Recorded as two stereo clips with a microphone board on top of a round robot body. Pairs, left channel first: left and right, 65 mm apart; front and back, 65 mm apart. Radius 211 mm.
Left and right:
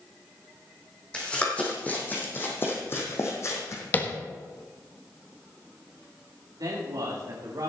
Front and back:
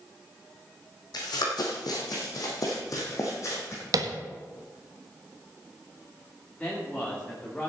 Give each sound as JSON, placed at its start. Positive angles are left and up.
{"t": 1.1, "sound": "running footsteps", "azimuth_deg": 15, "distance_m": 2.5}
{"t": 3.9, "sound": "tapping", "azimuth_deg": 155, "distance_m": 1.5}
{"t": 6.6, "sound": "a man speaking", "azimuth_deg": -75, "distance_m": 3.0}